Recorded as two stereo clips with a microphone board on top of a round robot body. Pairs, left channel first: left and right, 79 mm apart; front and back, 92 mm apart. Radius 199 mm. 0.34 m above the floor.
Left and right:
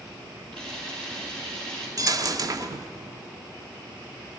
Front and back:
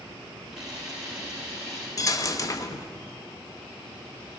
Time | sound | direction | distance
0.5 | a camera shutter | 100° right | 5.5 m
2.0 | a dropped coin | 50° right | 0.8 m